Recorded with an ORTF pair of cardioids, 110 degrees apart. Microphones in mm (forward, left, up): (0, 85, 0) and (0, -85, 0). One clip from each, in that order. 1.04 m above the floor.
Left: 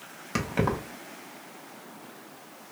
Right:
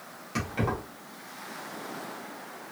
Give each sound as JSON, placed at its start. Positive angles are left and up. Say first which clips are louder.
{"t": 0.3, "sound": "keys jangling", "louder": "left 3 dB", "azimuth_deg": 45, "distance_m": 1.3}